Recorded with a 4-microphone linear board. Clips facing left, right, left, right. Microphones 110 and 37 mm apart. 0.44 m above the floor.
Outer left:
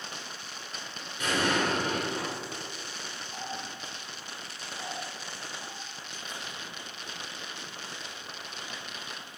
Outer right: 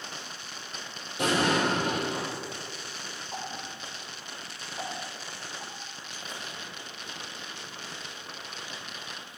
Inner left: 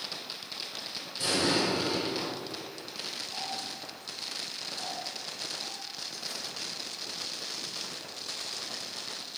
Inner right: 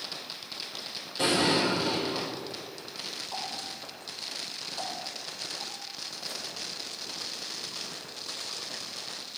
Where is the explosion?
80° right, 3.5 m.